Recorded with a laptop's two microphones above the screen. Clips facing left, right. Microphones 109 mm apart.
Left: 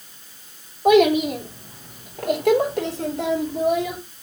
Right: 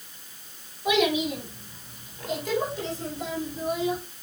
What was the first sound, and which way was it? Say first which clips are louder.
A child speaking: left 9 dB; 50° left (ahead or behind).